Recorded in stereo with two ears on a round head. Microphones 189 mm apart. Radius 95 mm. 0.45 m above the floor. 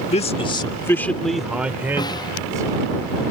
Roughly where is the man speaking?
Left.